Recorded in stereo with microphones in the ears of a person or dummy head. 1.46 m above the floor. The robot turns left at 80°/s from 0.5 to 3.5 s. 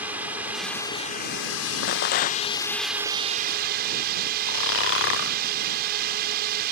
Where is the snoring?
55° left (ahead or behind).